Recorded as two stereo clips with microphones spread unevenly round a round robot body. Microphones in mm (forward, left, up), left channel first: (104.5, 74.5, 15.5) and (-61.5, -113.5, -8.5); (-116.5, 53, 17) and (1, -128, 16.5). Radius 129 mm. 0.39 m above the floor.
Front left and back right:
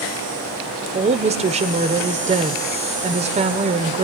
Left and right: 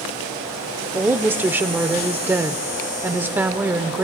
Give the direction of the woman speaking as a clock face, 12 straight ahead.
4 o'clock.